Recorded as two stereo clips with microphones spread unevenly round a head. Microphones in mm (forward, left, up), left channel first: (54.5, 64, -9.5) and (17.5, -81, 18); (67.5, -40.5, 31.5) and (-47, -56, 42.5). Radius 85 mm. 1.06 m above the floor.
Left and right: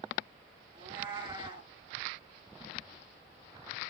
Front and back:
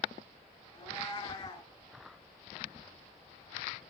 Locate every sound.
0.7 s a cat meowing: 45° right, 6 m